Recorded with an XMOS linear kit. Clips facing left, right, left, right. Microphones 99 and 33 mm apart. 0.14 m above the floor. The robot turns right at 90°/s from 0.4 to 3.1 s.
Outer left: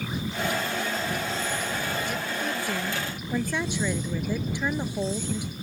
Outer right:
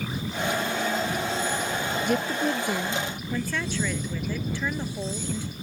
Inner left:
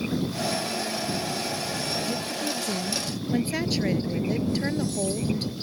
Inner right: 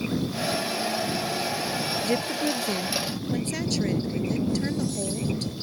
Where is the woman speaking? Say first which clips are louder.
Outer right 5 dB, inner right 4 dB; 75° right; by 5.5 s 20° left.